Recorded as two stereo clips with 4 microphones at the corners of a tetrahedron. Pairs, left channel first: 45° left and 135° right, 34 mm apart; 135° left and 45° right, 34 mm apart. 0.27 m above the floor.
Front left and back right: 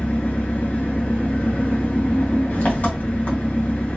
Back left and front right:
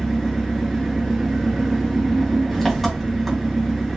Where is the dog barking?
I don't hear a dog barking.